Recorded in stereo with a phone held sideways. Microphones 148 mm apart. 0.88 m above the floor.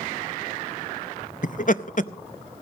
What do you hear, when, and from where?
1.4 s laughter: 55° left (ahead or behind), 0.5 m